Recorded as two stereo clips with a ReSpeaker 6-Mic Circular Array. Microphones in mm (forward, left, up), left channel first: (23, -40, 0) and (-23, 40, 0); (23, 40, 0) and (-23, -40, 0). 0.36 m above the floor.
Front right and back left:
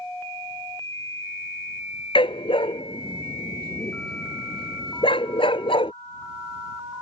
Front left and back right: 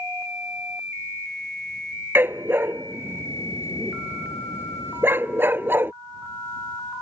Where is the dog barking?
55° right.